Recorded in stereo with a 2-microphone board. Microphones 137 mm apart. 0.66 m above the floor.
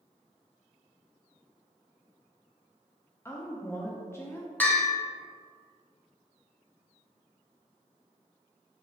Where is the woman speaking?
20° left (ahead or behind), 0.5 m.